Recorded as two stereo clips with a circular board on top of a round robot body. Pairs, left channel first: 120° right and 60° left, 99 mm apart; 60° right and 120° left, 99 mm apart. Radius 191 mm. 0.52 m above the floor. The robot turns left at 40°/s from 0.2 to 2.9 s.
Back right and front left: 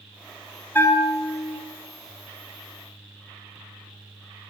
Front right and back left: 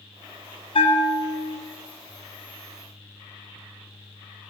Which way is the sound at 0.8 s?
50° right.